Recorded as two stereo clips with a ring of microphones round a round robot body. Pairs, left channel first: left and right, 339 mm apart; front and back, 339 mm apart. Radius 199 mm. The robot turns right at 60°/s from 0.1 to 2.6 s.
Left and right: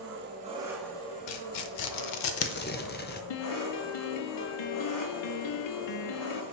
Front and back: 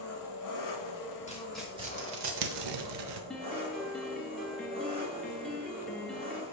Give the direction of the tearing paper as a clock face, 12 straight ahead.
10 o'clock.